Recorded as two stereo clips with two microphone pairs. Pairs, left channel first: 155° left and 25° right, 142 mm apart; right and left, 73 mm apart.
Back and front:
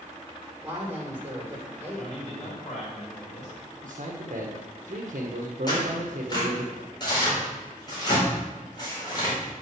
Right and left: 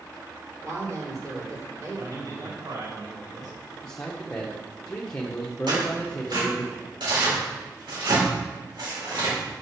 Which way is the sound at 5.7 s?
95° left.